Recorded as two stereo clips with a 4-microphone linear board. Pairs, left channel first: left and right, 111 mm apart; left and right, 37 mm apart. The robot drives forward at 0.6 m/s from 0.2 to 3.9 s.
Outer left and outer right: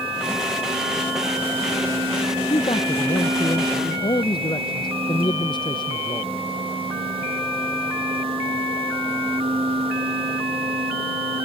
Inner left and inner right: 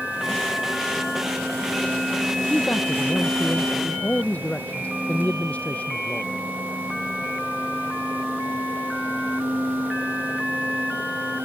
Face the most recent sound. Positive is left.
turn(degrees=45)  # may be behind; listen again after turning